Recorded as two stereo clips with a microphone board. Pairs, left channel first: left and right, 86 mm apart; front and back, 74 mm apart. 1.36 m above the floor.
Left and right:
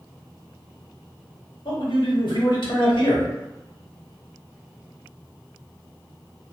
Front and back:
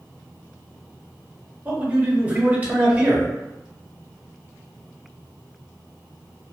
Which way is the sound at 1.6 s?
110° left.